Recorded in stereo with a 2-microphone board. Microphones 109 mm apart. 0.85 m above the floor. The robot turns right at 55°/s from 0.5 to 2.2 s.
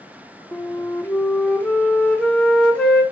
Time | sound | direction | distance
0.5 | a flute | 15° left (ahead or behind) | 0.6 m